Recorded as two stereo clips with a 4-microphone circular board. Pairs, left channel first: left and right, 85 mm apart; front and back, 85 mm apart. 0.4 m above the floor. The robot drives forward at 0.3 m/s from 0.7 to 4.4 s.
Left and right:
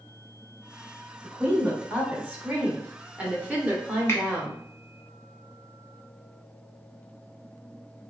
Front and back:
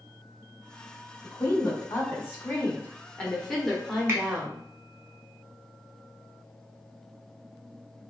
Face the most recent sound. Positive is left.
turn(degrees=145)